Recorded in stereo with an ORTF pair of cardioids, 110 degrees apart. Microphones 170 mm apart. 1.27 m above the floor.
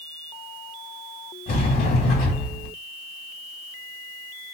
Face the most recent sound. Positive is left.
turn(degrees=70)